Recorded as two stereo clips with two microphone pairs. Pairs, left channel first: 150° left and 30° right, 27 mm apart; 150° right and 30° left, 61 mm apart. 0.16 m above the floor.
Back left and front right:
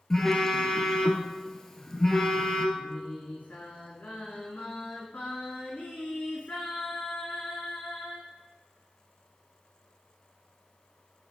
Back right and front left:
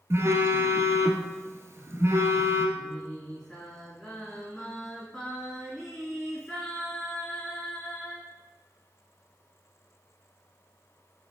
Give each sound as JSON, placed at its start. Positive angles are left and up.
{"t": 0.1, "sound": "a phone buzzing", "azimuth_deg": 70, "distance_m": 0.9}
{"t": 2.8, "sound": "singing", "azimuth_deg": 125, "distance_m": 3.5}